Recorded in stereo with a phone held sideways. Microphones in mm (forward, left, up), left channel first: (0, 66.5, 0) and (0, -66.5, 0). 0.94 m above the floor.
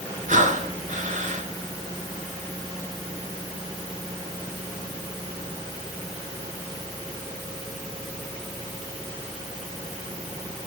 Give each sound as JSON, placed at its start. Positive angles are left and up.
{"t": 0.3, "sound": "breathing", "side_deg": -70, "distance_m": 5.0}